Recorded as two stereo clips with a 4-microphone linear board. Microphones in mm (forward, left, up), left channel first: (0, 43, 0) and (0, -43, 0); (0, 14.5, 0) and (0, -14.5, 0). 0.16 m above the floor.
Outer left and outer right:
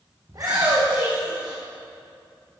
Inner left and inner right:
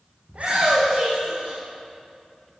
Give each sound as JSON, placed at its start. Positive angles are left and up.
{"t": 0.3, "sound": "a shout", "side_deg": -45, "distance_m": 7.5}